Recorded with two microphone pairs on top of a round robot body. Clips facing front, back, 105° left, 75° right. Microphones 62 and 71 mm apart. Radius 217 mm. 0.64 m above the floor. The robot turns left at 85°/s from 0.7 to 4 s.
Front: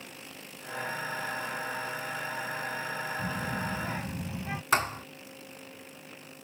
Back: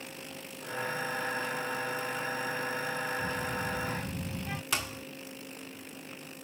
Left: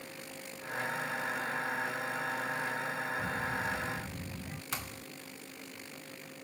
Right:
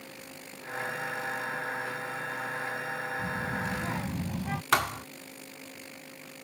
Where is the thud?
50° right.